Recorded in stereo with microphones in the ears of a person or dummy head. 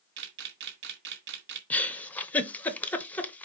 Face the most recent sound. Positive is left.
turn(degrees=5)  # may be behind; listen again after turning